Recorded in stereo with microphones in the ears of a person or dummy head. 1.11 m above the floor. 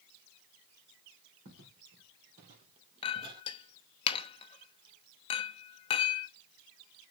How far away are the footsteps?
About 3 m.